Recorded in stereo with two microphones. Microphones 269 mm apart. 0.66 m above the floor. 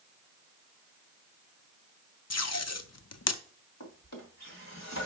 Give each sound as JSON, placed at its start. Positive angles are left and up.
{"t": 2.3, "sound": "tape being pulled", "side_deg": 65, "distance_m": 0.5}
{"t": 3.8, "sound": "a drawer", "side_deg": 75, "distance_m": 2.0}